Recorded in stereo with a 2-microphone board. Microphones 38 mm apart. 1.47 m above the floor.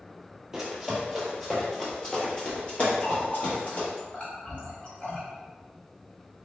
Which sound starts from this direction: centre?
Running footsteps, at 0.5 s.